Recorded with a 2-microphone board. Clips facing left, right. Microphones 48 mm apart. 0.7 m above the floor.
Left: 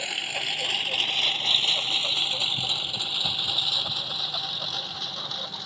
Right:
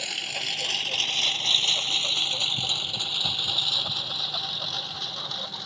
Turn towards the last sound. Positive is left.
turn(degrees=0)  # may be behind; listen again after turning